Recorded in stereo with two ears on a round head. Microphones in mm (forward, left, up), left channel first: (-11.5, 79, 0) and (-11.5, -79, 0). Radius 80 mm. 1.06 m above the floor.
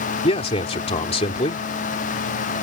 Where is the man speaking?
35° left (ahead or behind).